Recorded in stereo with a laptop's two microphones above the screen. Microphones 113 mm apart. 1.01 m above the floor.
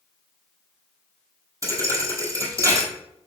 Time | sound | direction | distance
1.6 | a thud | 25° right (ahead or behind) | 1.3 m